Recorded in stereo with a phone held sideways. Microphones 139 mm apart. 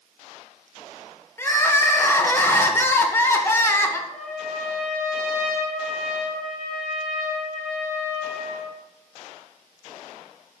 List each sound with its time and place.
1.4 s crying: 15° left (ahead or behind), 1.3 m
4.1 s a trumpet: 5° left (ahead or behind), 6.5 m